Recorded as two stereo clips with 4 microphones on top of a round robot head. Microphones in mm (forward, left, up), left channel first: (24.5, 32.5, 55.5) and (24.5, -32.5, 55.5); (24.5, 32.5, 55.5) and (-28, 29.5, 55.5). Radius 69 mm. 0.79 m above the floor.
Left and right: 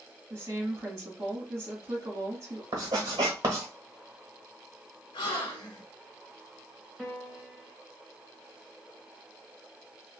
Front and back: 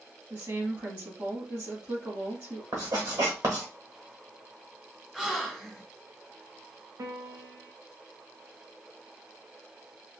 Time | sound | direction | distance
0.3 | a woman speaking | 135° right | 1.8 m
2.7 | writing | 140° right | 1.2 m
5.1 | a gasp | 100° left | 1.6 m
7.0 | a piano | 170° left | 0.8 m